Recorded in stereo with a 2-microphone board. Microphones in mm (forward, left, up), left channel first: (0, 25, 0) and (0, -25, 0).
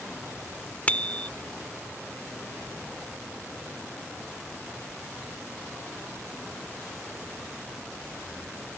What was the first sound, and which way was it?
A bicycle bell, 30° left (ahead or behind).